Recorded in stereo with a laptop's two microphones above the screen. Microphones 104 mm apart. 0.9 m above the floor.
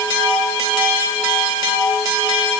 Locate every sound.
Only background noise.